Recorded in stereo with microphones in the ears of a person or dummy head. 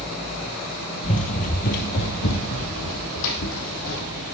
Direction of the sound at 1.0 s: 35° left (ahead or behind).